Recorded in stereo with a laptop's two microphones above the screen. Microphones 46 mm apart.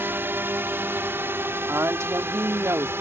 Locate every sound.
0.0 s a drone: 50° right (ahead or behind); by 3.0 s 55° right (ahead or behind)
1.7 s a woman speaking: 75° right (ahead or behind)